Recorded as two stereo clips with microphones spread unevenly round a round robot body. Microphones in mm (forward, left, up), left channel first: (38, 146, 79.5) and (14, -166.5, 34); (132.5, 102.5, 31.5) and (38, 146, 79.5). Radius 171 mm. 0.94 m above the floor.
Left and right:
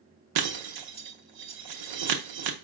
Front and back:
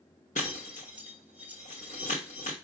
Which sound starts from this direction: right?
Breaking glass, at 0.3 s.